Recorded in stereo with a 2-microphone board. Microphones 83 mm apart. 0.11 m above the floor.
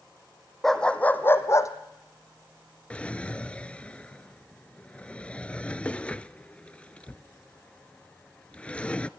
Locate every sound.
0.6 s a dog barking: 5° left (ahead or behind), 1.4 m; by 1.7 s 40° left (ahead or behind), 1.5 m
2.9 s a drawer: 15° left (ahead or behind), 0.6 m